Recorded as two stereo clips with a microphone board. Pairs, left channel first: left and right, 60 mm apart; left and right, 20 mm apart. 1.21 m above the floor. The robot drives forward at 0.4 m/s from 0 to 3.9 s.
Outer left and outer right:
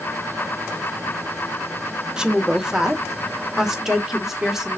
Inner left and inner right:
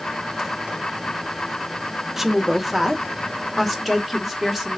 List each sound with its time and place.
2.2 s a woman speaking: 15° right (ahead or behind), 0.9 m; by 4.8 s 10° right (ahead or behind), 1.6 m